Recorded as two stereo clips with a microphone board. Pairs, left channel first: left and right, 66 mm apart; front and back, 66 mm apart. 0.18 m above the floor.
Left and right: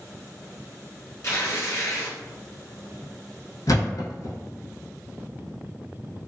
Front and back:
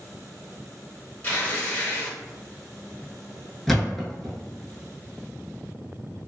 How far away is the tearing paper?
About 1.5 m.